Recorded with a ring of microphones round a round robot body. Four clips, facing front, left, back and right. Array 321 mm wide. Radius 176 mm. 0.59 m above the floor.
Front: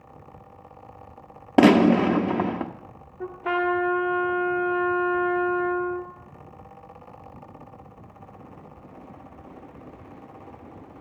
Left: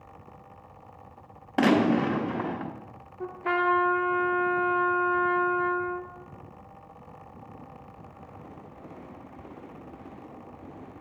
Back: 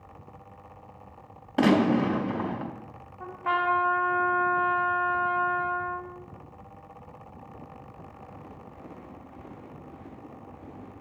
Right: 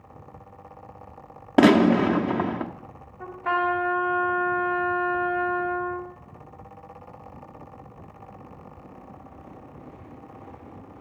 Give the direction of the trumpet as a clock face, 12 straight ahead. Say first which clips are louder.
Right 1 dB, front 2 dB; 11 o'clock.